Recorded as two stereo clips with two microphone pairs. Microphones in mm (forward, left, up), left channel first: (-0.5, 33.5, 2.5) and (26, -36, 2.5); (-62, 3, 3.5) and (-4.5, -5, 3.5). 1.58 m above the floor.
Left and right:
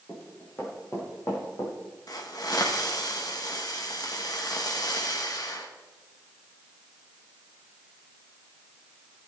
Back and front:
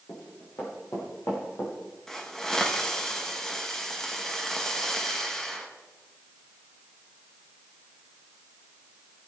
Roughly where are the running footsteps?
Behind.